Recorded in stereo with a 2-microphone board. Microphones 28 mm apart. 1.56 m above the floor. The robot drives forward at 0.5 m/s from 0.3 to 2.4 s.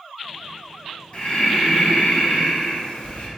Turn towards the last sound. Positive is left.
turn(degrees=45)  # may be behind; listen again after turning